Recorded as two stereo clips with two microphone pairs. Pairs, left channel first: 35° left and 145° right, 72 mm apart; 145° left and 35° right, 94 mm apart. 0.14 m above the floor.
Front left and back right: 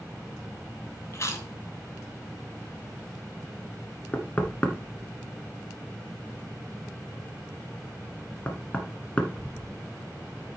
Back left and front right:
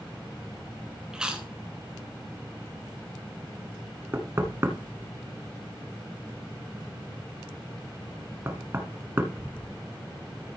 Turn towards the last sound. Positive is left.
turn(degrees=-10)